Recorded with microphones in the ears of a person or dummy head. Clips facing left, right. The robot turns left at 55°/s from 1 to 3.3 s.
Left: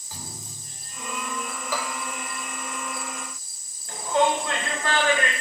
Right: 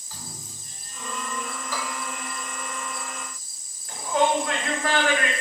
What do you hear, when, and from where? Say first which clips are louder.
0.1 s a thud: left 2 dB; 10° left (ahead or behind), 1.4 m; by 1.1 s 15° left (ahead or behind), 1.4 m
1.7 s a bell: left 3 dB; 75° left (ahead or behind), 2 m; by 2.0 s 65° left (ahead or behind), 2 m
3.9 s a shout: even; 30° left (ahead or behind), 3.5 m